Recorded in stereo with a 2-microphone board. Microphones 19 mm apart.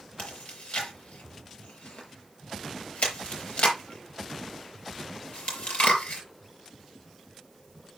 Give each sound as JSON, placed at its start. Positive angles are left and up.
{"t": 0.2, "sound": "chewing", "side_deg": 80, "distance_m": 5.0}